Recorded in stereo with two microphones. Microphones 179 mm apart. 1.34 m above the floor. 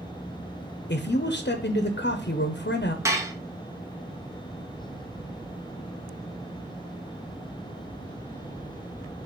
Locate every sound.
0.9 s a man speaking: 70° left (ahead or behind), 0.7 m
3.0 s dishes clattering: 15° right (ahead or behind), 1.1 m